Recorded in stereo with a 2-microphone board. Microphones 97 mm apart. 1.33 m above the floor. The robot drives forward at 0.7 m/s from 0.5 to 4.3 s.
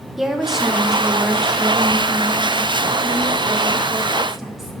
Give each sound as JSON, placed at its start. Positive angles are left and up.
{"t": 0.2, "sound": "a woman speaking", "side_deg": -5, "distance_m": 1.3}